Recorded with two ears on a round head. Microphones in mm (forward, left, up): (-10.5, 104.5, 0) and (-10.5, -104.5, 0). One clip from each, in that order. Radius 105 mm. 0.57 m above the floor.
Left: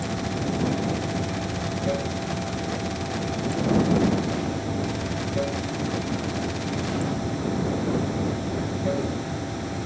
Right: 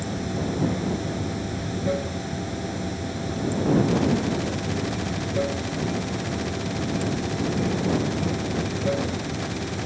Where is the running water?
5° right (ahead or behind).